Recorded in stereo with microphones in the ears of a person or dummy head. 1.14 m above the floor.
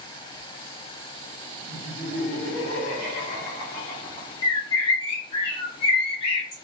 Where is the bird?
30° left (ahead or behind), 0.8 m.